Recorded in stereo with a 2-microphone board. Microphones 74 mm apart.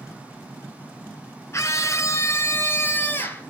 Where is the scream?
40° left (ahead or behind), 1.3 m; by 3.4 s 30° left (ahead or behind), 2.5 m.